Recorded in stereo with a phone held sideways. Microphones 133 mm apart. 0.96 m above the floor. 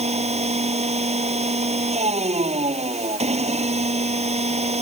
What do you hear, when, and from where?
0.0 s a machine running: 50° right (ahead or behind)